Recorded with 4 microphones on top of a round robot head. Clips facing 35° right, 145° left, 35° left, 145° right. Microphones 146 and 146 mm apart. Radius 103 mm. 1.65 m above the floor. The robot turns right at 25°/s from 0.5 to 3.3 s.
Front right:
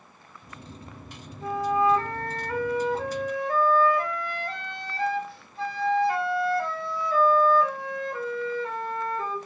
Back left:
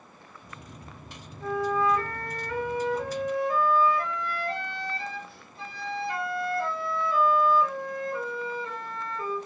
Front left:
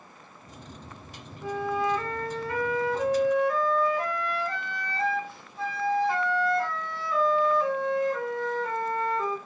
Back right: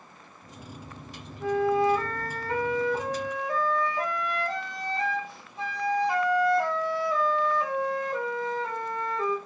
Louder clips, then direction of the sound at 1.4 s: Front right 2 dB, back right 5 dB; 120° right.